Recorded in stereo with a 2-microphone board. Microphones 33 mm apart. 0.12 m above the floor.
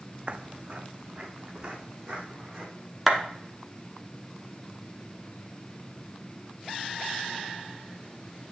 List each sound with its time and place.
0.3 s footsteps: 40° right (ahead or behind), 0.5 m; by 2.7 s 25° right (ahead or behind), 3.5 m
3.1 s a clap: 5° right (ahead or behind), 1.4 m